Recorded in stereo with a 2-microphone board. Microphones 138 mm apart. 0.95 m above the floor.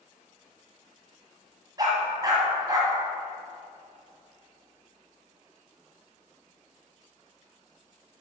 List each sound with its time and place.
1.8 s a dog barking: 30° right (ahead or behind), 1.5 m